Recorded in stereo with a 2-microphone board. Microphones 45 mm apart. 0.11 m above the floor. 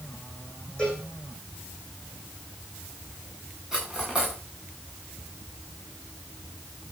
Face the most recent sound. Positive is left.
turn(degrees=-5)  # may be behind; listen again after turning